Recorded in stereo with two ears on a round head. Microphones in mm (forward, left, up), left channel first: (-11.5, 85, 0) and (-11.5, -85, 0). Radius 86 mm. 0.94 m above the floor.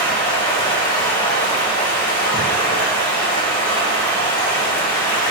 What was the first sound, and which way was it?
Running water, 50° left (ahead or behind).